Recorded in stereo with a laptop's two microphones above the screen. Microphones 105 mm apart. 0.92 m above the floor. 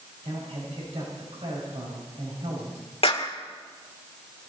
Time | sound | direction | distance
0.2 | a man speaking | 75° right (ahead or behind) | 5.5 m
3.0 | a clap | 65° left (ahead or behind) | 1.8 m